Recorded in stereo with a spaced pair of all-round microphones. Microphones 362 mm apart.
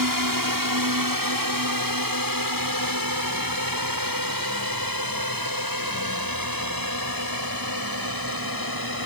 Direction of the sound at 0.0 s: 65° right (ahead or behind).